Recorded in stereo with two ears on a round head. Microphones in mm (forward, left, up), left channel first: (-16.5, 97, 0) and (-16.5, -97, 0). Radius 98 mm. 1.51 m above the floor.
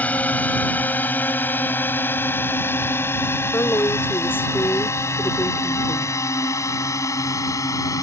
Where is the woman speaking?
10° left (ahead or behind).